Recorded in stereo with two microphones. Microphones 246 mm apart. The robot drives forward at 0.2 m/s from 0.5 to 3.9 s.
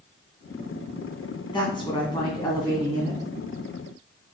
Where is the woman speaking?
20° left (ahead or behind), 1.7 m; by 3.2 s 15° left (ahead or behind), 2 m.